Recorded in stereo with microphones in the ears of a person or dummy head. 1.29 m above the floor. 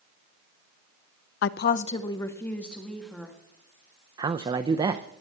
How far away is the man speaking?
About 0.6 m.